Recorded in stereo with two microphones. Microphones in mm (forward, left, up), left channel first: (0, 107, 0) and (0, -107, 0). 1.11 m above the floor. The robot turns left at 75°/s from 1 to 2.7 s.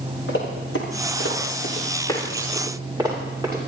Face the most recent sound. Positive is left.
turn(degrees=-20)  # may be behind; listen again after turning